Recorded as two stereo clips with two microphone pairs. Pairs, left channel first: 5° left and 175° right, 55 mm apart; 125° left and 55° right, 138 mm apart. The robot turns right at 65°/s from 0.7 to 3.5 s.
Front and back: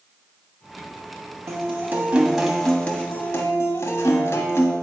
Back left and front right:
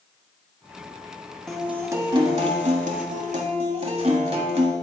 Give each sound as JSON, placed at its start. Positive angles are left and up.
{"t": 1.5, "sound": "a guitar", "azimuth_deg": -145, "distance_m": 1.3}